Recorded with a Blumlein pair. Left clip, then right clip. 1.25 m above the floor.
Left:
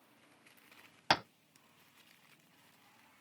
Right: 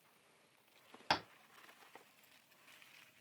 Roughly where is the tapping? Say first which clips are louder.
Left 5 dB; ahead.